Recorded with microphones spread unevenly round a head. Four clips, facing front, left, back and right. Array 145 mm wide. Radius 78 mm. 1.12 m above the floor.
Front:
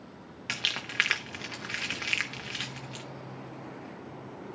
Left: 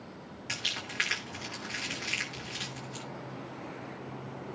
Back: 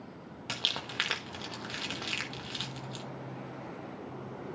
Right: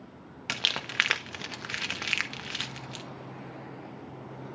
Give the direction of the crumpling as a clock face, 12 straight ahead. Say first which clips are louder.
Right 5 dB, front 1 dB; 3 o'clock.